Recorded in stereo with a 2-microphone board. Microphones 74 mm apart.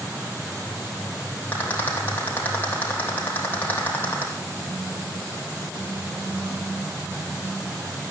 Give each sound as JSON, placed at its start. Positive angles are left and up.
{"t": 1.5, "sound": "a rattle", "side_deg": 25, "distance_m": 4.0}